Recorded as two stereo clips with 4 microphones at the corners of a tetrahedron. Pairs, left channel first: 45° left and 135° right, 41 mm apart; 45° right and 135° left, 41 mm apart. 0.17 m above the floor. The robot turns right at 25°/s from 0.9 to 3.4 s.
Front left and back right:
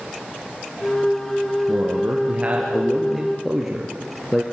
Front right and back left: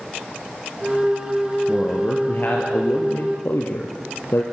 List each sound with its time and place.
1.7 s a man speaking: 95° right, 3 m; by 4.4 s 50° right, 3 m